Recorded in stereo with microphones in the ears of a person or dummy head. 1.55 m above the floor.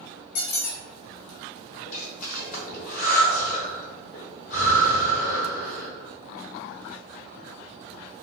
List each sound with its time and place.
0.3 s a squeak: 55° left (ahead or behind), 0.9 m
1.9 s breathing: 50° left (ahead or behind), 1.0 m